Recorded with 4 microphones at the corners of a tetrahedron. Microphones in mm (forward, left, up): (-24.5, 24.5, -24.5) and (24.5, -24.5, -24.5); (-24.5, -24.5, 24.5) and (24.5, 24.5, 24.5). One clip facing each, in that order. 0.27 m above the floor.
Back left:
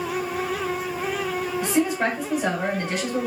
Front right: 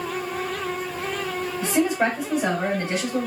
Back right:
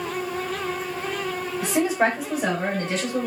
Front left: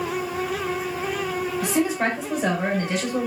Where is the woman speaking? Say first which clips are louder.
Front right 2 dB, back right 3 dB; 90° right, 1.5 m; by 3.3 s straight ahead, 1.3 m.